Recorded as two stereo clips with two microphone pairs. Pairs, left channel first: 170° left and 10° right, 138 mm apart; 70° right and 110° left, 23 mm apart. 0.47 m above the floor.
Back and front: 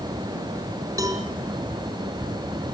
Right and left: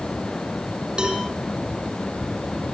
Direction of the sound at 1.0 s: 55° left.